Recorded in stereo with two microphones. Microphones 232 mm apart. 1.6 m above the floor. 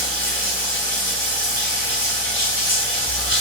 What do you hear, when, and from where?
0.0 s running water: 60° left (ahead or behind), 7.5 m